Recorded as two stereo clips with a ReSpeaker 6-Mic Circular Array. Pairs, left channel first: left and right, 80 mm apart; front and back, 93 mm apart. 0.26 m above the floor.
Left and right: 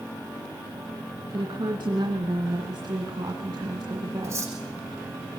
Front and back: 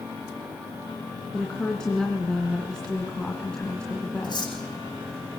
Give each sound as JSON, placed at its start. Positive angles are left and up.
{"t": 1.3, "sound": "a woman speaking", "azimuth_deg": -80, "distance_m": 2.5}
{"t": 4.2, "sound": "cutlery clinking", "azimuth_deg": -40, "distance_m": 8.0}